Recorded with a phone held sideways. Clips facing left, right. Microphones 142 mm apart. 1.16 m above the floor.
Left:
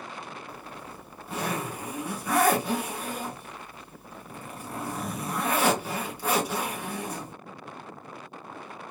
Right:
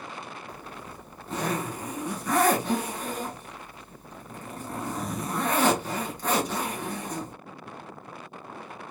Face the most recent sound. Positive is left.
turn(degrees=10)  # may be behind; listen again after turning